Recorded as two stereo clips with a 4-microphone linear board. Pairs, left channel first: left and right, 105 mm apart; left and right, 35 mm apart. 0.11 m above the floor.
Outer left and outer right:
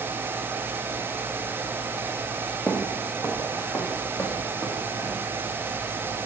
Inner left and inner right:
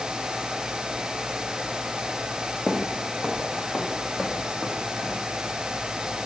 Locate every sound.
2.7 s footsteps: 15° left (ahead or behind), 1.7 m; by 5.3 s 30° left (ahead or behind), 4 m